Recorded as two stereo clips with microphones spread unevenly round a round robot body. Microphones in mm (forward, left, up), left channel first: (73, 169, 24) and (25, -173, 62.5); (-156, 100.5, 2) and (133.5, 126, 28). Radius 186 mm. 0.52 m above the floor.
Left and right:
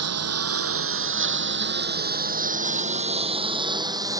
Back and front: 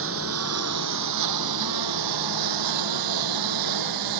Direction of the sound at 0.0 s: 55° right.